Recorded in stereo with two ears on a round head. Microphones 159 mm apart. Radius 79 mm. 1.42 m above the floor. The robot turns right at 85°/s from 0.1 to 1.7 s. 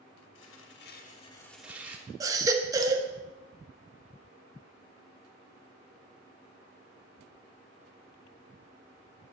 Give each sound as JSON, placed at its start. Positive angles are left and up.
{"t": 0.3, "sound": "tearing paper", "azimuth_deg": 75, "distance_m": 1.5}
{"t": 2.2, "sound": "a baby crying", "side_deg": -20, "distance_m": 0.9}